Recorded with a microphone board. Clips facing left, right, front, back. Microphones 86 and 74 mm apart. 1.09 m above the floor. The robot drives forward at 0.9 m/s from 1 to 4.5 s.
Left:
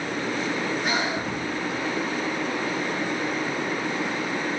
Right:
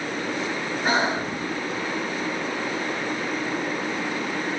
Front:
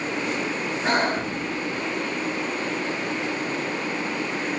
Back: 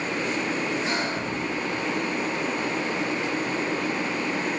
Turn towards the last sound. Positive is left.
turn(degrees=-150)